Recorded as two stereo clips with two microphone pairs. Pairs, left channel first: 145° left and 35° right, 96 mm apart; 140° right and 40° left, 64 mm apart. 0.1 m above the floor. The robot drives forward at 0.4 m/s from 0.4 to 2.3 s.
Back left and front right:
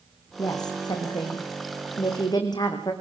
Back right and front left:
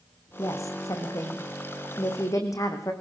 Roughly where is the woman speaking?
Behind.